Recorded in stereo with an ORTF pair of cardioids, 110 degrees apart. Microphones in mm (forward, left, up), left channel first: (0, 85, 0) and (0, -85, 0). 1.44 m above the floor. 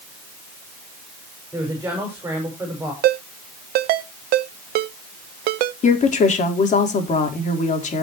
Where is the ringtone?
70° right, 0.9 m.